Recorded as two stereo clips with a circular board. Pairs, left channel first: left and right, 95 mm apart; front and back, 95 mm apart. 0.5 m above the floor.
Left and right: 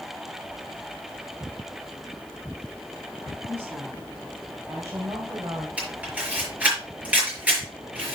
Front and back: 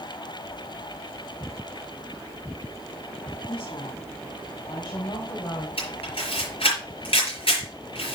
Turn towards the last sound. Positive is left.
turn(degrees=-15)